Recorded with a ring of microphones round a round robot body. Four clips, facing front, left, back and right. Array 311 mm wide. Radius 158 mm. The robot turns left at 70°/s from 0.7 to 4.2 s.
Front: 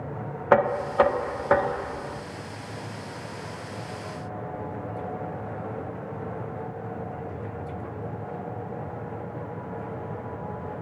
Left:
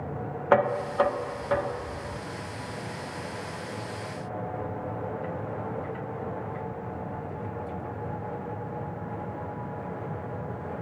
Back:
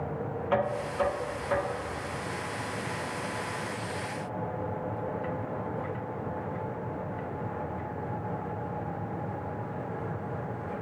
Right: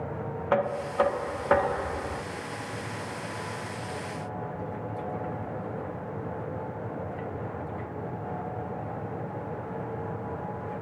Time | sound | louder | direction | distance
0.5 | knocking | left 4 dB, front 9 dB | 25° left | 0.7 m